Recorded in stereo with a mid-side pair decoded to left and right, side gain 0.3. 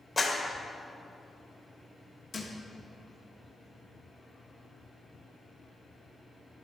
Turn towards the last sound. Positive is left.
turn(degrees=60)